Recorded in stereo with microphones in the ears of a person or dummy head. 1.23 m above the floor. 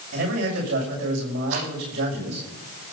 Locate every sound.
0.1 s a man speaking: 60° right (ahead or behind), 7 m
1.5 s a rattle: 85° right, 8.5 m